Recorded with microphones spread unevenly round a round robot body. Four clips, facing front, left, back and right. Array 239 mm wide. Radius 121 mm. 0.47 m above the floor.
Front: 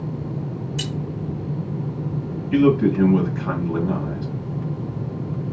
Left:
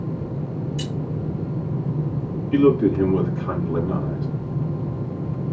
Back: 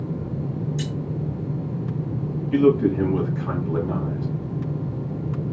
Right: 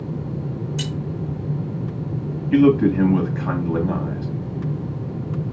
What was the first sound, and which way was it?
Keys jangling, 45° right.